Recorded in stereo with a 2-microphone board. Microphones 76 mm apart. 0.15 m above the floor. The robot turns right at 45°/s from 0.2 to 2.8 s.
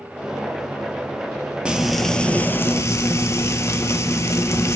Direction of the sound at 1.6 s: 10° right.